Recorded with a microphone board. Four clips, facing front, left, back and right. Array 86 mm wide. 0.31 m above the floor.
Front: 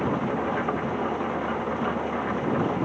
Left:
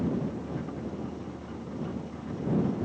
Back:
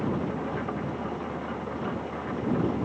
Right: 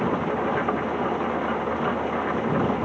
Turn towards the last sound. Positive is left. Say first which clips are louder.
# right 7 dB, front 4 dB
turn(degrees=-65)